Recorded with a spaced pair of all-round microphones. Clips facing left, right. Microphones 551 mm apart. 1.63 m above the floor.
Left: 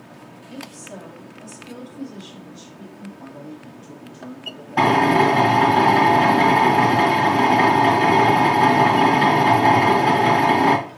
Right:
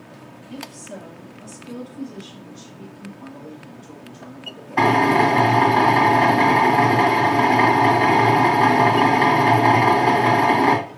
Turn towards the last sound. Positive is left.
turn(degrees=50)  # may be behind; listen again after turning